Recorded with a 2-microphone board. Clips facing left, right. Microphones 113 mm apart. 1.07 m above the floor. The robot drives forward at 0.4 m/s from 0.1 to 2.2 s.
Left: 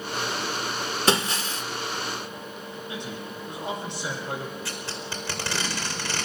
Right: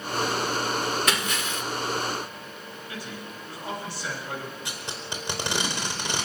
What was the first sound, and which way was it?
Breaking glass, 30° left (ahead or behind).